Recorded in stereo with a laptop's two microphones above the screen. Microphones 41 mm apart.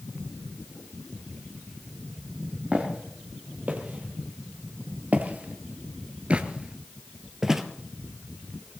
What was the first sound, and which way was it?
Footsteps, 35° right (ahead or behind).